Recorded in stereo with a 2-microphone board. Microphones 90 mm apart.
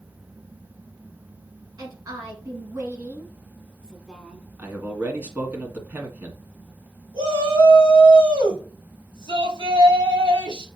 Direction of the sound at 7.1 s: 65° right (ahead or behind).